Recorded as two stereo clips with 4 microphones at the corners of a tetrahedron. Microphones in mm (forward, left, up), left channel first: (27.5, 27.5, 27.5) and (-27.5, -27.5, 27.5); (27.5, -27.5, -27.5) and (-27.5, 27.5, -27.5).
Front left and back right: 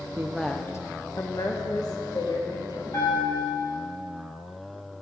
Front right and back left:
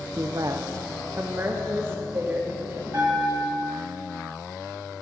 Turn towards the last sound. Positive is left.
turn(degrees=75)